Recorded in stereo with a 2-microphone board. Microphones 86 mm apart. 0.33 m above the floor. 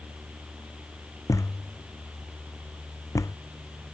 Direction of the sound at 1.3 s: 40° left (ahead or behind).